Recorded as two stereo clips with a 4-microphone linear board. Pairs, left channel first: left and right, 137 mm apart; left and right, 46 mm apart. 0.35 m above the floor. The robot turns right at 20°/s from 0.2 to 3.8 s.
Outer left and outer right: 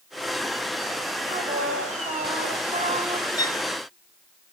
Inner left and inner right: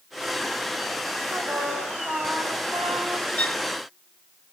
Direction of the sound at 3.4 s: 30° left (ahead or behind).